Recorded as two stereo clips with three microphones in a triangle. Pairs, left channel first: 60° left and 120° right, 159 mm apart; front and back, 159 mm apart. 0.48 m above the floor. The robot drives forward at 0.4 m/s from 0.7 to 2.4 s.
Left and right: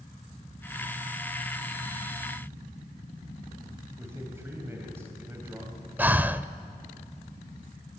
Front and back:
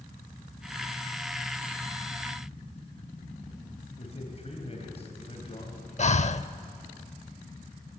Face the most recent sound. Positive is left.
turn(degrees=-40)